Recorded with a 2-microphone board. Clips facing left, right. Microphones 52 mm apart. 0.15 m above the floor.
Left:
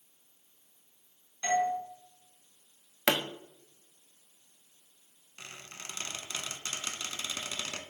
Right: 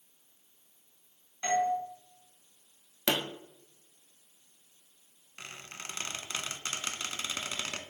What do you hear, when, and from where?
1.4 s a doorbell: 25° right (ahead or behind), 1.5 m
3.1 s a pop: 70° left (ahead or behind), 0.5 m
5.4 s a squeak: 30° right (ahead or behind), 0.5 m